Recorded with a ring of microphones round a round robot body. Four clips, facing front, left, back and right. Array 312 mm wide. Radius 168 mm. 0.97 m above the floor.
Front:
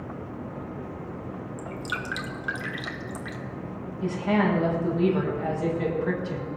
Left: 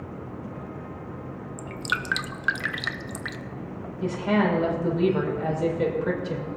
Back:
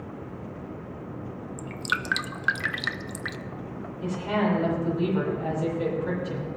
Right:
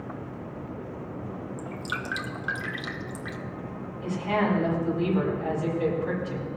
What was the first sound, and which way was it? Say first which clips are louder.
Dripping: left 6 dB, back 4 dB; 135° left.